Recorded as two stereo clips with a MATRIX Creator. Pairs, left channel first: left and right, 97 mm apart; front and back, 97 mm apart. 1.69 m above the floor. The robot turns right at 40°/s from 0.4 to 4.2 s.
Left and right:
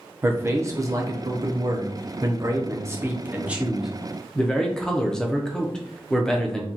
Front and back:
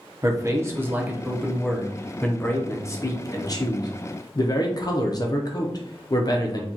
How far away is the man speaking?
About 0.7 m.